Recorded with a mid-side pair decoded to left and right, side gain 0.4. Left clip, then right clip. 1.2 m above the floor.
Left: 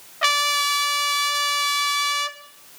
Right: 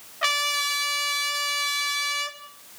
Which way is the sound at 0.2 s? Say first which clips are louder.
Left 4 dB; 30° left.